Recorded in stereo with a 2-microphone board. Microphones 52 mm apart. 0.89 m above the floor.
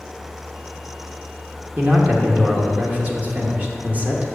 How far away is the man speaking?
About 1.1 m.